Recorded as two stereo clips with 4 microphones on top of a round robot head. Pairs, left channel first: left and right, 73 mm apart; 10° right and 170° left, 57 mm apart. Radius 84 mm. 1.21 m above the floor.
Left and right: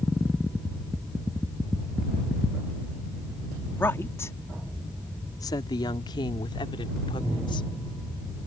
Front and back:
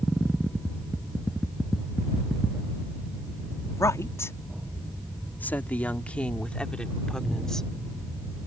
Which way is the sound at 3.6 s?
20° left.